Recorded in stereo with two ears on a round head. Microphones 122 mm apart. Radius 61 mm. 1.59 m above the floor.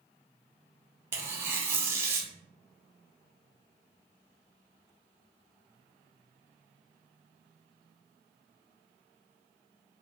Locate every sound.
1.1 s tearing paper: 20° right (ahead or behind), 0.7 m